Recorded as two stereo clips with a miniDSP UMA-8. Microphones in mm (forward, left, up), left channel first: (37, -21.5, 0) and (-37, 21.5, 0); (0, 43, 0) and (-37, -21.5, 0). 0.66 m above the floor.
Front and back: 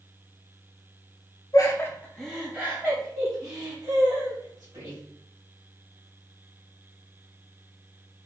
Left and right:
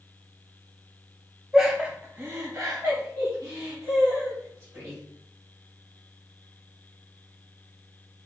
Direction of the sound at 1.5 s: 40° right.